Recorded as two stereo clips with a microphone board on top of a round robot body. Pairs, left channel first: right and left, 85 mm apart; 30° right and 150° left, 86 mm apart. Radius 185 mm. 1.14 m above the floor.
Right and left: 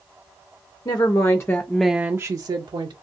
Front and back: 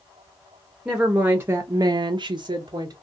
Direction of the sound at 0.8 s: 130° right.